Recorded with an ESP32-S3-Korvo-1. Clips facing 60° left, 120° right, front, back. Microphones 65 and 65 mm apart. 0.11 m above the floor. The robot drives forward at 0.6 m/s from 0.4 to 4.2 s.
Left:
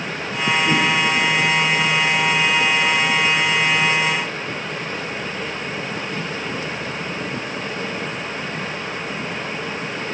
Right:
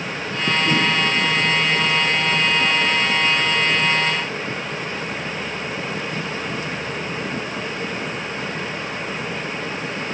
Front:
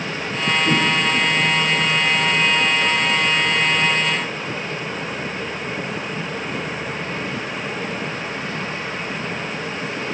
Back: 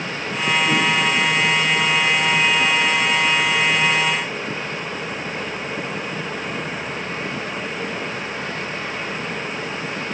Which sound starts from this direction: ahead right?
A whoosh, at 0.7 s.